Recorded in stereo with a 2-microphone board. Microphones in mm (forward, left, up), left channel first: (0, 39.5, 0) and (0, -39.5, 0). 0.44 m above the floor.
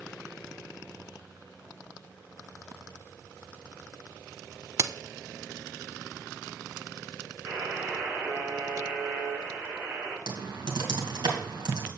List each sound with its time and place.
4.8 s a crack: 35° right (ahead or behind), 0.5 m
7.5 s a buzzer: 35° right (ahead or behind), 5.5 m
10.3 s typing on a keyboard: 70° right (ahead or behind), 2 m